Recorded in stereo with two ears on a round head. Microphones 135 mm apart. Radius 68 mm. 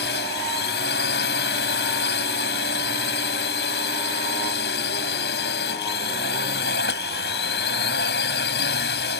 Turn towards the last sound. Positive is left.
turn(degrees=75)  # may be behind; listen again after turning